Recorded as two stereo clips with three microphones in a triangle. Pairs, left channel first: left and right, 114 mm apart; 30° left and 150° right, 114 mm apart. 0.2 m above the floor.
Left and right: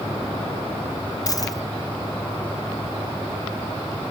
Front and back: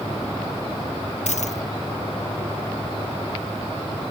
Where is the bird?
I don't hear a bird.